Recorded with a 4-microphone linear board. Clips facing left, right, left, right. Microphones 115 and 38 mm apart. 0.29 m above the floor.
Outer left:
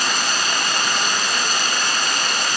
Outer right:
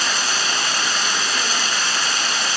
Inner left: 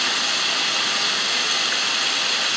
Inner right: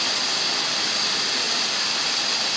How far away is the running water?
About 2 m.